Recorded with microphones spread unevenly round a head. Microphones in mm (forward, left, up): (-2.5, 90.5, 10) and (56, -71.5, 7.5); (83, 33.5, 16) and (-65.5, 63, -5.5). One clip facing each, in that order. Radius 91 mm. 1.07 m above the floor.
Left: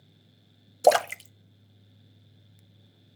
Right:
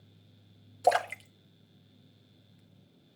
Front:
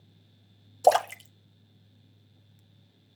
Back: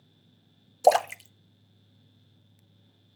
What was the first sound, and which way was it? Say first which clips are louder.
A splash: left 6 dB, back 1 dB; 95° left.